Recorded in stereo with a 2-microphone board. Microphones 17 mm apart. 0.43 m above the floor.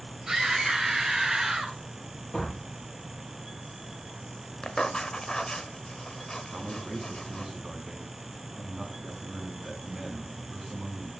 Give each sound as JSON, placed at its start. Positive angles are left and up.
{"t": 0.3, "sound": "a scream", "side_deg": -20, "distance_m": 2.5}
{"t": 2.3, "sound": "a door slam", "side_deg": 15, "distance_m": 8.5}
{"t": 4.6, "sound": "writing", "side_deg": 50, "distance_m": 1.2}
{"t": 6.5, "sound": "a man speaking", "side_deg": -5, "distance_m": 4.5}